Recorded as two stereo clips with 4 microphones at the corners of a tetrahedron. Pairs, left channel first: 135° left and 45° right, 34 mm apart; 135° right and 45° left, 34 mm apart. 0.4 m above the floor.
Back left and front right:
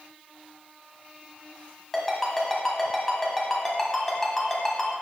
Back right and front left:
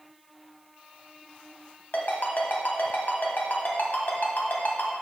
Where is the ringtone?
145° right, 1.6 m.